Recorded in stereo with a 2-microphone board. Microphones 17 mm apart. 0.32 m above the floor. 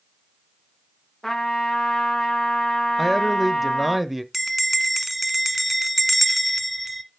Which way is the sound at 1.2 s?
20° left (ahead or behind).